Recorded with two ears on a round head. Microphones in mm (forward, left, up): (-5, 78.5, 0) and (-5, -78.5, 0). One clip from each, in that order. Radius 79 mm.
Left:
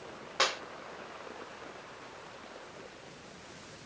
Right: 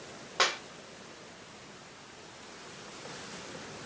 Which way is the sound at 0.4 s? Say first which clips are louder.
Right 2 dB; 5° right (ahead or behind).